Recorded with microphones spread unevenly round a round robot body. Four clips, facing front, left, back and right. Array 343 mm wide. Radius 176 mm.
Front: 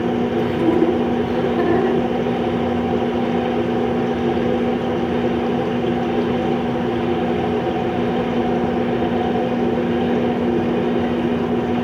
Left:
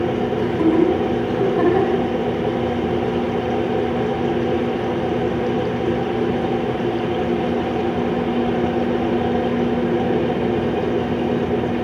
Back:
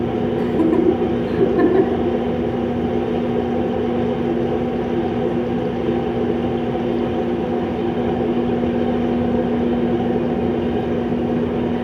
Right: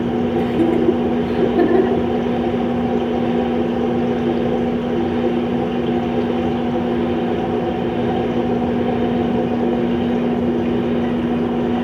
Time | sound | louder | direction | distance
0.4 | laughter | left 1 dB, back 1 dB | 140° right | 6 m